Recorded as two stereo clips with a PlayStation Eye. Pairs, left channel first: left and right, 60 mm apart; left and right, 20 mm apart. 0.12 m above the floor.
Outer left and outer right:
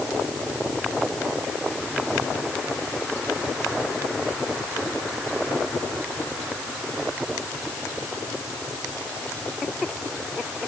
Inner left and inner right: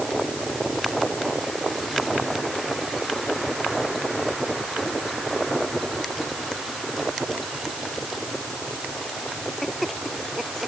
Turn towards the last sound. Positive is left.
No sound to turn to.